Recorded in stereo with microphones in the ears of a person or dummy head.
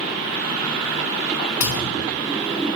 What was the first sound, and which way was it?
A thud, 10° right (ahead or behind).